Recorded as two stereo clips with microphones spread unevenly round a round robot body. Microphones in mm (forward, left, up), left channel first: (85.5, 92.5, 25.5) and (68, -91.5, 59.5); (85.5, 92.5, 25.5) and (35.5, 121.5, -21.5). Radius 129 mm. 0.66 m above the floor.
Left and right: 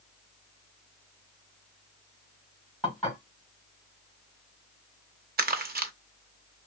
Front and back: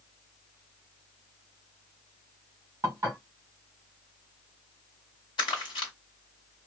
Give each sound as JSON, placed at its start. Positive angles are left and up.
{"t": 2.8, "sound": "dishes clattering", "azimuth_deg": 170, "distance_m": 1.4}
{"t": 5.4, "sound": "crumpling", "azimuth_deg": -55, "distance_m": 0.7}